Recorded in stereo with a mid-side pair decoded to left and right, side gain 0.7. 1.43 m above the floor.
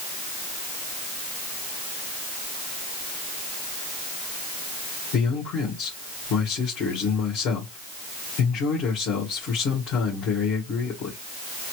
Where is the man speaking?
60° left, 1.9 m.